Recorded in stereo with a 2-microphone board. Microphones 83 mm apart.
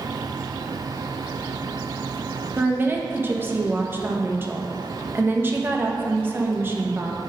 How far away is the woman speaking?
About 0.7 m.